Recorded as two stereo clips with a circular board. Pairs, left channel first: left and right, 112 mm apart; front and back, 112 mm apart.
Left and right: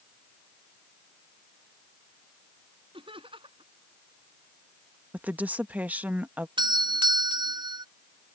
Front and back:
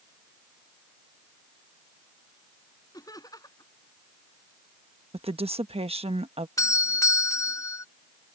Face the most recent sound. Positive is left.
turn(degrees=-55)